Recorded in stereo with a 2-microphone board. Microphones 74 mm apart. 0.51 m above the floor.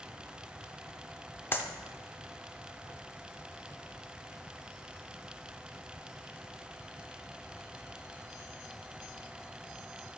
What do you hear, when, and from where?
1.5 s a clap: 25° left (ahead or behind), 0.8 m